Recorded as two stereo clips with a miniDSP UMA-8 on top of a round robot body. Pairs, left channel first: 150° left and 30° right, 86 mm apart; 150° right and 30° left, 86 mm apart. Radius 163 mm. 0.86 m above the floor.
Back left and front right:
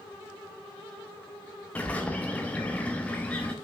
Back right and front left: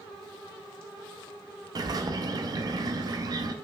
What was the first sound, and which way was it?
A bird, 75° left.